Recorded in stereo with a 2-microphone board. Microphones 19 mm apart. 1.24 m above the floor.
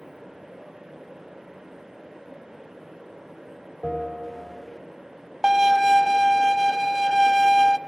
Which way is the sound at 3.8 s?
25° left (ahead or behind).